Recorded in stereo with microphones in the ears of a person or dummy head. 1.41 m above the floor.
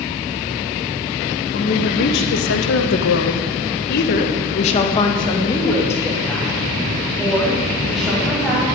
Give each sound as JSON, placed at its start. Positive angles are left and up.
{"t": 1.5, "sound": "a woman speaking", "side_deg": 55, "distance_m": 2.5}